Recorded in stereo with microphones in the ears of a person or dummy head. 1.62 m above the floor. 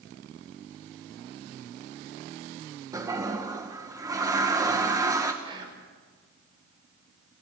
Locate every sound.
2.9 s a toilet flushing: 20° right (ahead or behind), 2 m
5.4 s whispering: 25° right (ahead or behind), 6 m